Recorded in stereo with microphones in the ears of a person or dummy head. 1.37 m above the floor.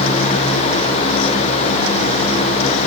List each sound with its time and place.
Only background noise.